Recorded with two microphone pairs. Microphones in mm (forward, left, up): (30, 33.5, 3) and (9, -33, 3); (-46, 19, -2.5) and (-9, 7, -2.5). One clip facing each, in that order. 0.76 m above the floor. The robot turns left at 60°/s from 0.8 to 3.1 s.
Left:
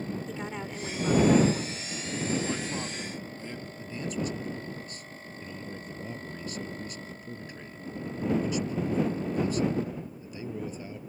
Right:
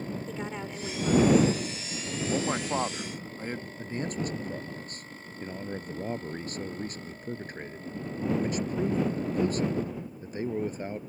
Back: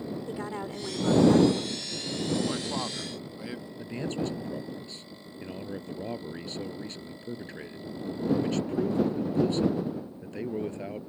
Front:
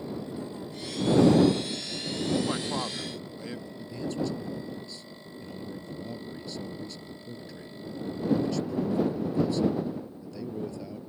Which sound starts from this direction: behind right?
A man speaking, at 3.8 s.